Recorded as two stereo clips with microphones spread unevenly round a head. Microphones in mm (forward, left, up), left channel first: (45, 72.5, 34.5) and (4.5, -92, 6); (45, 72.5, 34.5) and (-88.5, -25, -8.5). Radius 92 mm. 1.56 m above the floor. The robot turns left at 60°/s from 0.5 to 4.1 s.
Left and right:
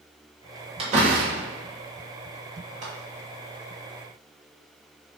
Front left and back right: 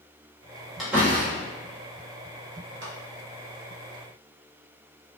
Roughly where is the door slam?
Ahead right.